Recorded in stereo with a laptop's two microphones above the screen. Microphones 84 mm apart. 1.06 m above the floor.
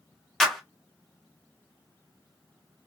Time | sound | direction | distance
0.4 | a clap | centre (ahead or behind) | 1.3 m